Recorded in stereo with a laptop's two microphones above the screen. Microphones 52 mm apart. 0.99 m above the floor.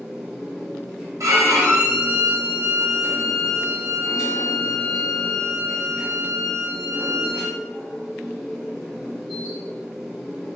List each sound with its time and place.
0.0 s a machine running: 5° right (ahead or behind), 1.9 m
1.2 s a violin: 85° right, 0.9 m